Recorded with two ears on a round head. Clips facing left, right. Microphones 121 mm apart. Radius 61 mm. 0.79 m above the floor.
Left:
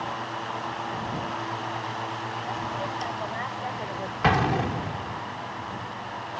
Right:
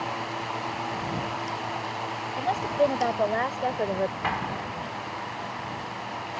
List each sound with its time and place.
2.4 s a woman speaking: 75° right (ahead or behind); by 4.1 s 50° right (ahead or behind)
4.2 s an explosion: 75° left (ahead or behind)